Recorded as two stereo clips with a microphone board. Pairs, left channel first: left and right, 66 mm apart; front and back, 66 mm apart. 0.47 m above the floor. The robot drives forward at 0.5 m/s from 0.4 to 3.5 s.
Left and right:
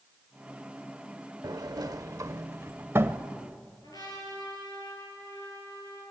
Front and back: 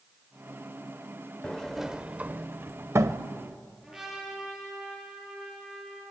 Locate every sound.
1.4 s a sliding door: 80° right, 0.7 m; by 3.2 s 140° right, 1.0 m
3.8 s a trumpet: 100° left, 8 m